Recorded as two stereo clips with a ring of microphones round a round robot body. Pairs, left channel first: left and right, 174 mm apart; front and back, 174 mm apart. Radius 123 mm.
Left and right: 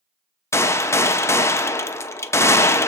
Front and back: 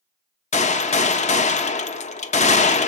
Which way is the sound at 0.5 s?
20° left.